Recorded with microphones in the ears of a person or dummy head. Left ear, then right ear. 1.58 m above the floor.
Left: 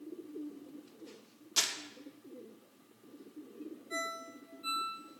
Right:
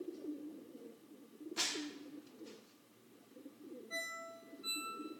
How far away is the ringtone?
About 2.5 m.